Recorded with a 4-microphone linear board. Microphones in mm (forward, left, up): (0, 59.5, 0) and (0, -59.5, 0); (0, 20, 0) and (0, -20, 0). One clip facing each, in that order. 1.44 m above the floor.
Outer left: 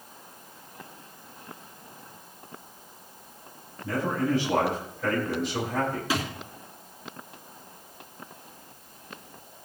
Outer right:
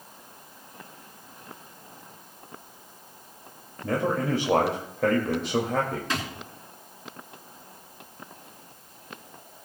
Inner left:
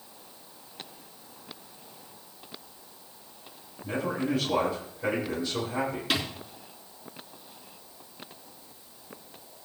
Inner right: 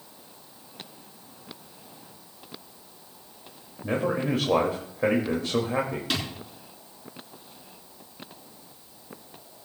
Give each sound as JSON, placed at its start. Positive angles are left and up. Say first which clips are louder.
{"t": 3.8, "sound": "a man speaking", "louder": "outer right 1 dB, inner right 3 dB", "side_deg": -70, "distance_m": 2.5}
{"t": 6.1, "sound": "a thud", "louder": "outer left 2 dB, inner left 2 dB", "side_deg": 5, "distance_m": 3.5}